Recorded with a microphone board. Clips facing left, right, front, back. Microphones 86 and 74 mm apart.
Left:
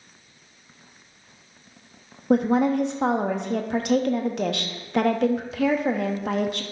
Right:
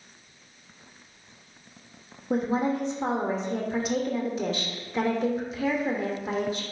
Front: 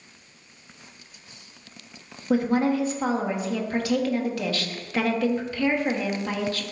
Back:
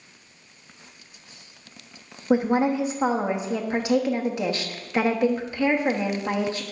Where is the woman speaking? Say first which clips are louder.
Left 6 dB, back 1 dB; 110° left, 1.0 m.